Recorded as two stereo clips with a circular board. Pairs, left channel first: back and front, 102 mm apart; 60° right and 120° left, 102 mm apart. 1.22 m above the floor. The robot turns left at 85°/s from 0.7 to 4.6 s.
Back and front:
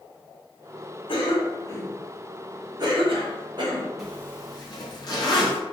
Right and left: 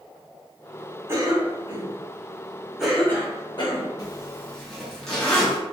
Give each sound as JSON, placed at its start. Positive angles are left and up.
{"t": 1.1, "sound": "a cough", "azimuth_deg": 180, "distance_m": 1.0}
{"t": 4.0, "sound": "a zipper", "azimuth_deg": -90, "distance_m": 0.8}